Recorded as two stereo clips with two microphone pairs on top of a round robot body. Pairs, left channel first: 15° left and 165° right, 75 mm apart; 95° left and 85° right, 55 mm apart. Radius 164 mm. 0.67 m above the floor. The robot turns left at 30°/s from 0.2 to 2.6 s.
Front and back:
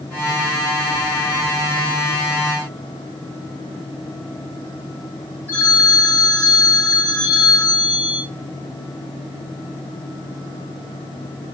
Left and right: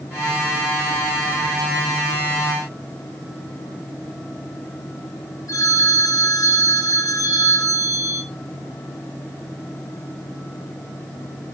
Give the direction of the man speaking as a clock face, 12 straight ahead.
I don't hear a man speaking.